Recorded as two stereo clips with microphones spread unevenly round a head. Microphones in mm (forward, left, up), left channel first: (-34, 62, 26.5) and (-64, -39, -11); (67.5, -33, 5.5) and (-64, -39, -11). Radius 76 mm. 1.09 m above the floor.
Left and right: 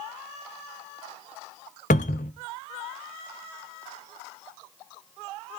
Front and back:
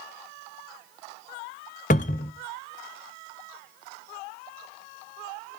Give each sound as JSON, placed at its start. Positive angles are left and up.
{"t": 1.9, "sound": "a cupboard door", "azimuth_deg": 40, "distance_m": 0.5}